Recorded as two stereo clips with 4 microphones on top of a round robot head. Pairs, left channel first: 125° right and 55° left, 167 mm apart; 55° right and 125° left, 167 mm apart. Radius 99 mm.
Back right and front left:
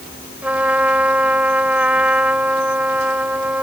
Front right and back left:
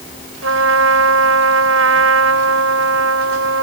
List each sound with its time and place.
0.4 s a trumpet: 135° left